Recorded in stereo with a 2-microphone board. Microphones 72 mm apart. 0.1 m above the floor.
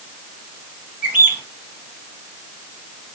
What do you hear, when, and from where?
1.0 s a bird: 20° right (ahead or behind), 1.8 m